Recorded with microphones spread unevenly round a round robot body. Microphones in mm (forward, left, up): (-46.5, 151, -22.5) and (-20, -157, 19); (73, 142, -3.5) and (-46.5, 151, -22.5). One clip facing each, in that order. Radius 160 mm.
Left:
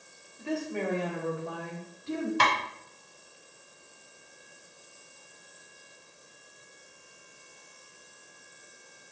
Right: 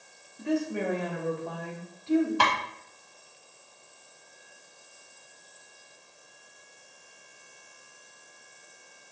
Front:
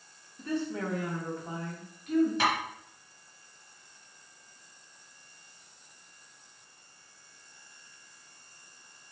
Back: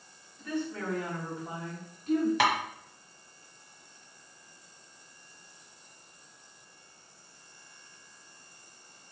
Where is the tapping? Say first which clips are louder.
Right 1 dB, back 2 dB; 160° left, 1.2 m.